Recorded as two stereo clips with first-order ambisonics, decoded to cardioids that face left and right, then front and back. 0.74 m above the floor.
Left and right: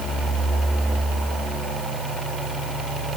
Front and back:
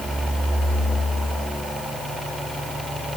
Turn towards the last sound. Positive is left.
No sound to turn to.